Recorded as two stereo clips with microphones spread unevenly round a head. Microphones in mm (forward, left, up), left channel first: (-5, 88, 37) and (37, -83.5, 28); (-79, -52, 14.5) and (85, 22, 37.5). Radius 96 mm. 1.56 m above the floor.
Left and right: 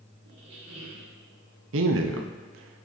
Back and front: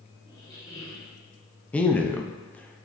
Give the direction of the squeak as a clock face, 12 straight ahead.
3 o'clock.